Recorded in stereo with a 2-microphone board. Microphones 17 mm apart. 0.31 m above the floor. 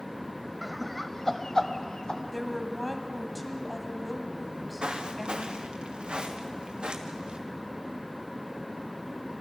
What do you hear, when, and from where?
0.6 s laughter: 5° right (ahead or behind), 1.1 m; by 2.2 s 55° left (ahead or behind), 1.7 m
2.3 s a woman speaking: centre (ahead or behind), 2.0 m
4.4 s footsteps: 75° right (ahead or behind), 2.5 m; by 7.4 s 65° right (ahead or behind), 3 m